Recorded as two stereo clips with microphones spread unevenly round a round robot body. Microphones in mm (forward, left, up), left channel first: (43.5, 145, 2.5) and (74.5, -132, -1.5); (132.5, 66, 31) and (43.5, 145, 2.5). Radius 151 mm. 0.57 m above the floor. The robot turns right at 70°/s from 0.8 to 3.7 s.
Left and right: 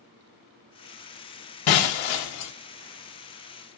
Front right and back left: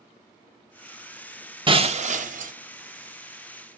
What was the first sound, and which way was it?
Breaking glass, 85° left.